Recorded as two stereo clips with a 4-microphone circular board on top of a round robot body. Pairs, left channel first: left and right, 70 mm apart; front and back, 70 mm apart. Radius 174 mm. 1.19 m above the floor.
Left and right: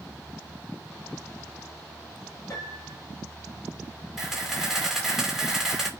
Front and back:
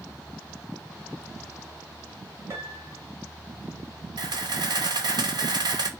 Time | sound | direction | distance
2.5 | a piano | 135° left | 6 m
4.2 | a camera shutter | 175° right | 3 m